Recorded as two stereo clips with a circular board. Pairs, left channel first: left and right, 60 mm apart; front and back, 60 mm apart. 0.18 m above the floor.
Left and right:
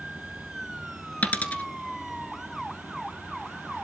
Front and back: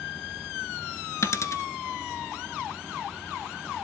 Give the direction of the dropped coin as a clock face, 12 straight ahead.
11 o'clock.